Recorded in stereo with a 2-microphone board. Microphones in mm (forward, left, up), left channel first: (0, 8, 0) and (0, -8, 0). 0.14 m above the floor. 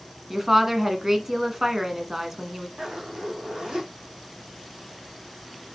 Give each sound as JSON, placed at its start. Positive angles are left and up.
{"t": 0.3, "sound": "a woman speaking", "side_deg": -20, "distance_m": 1.2}
{"t": 2.8, "sound": "a zipper", "side_deg": -65, "distance_m": 3.5}